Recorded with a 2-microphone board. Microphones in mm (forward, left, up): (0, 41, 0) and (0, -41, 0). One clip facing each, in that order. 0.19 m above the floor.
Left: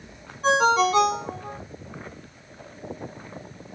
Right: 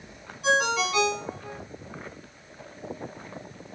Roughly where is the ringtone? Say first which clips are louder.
Left 5 dB; left.